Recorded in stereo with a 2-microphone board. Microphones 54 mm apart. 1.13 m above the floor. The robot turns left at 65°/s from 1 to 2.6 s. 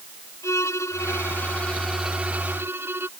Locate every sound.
0.4 s a violin: 60° left; by 3.1 s 45° right